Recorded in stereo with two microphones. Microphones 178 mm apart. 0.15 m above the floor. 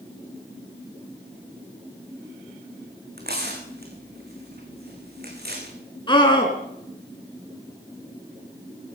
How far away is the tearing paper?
About 4 m.